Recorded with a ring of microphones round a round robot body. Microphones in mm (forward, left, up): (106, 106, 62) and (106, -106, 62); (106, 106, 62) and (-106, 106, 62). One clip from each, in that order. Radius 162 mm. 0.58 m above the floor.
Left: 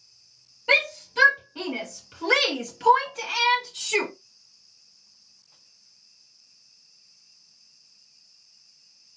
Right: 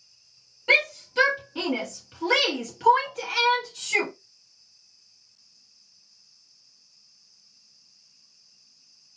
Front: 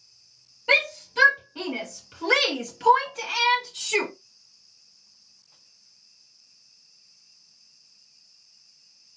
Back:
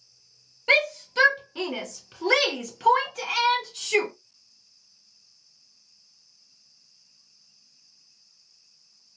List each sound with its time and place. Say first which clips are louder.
0.7 s a shout: even, even; 155° right, 1.6 m; by 4.1 s 70° left, 1.3 m